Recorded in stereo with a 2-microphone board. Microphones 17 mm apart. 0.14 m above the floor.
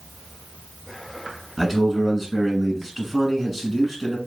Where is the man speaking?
Centre (ahead or behind), 1.3 m.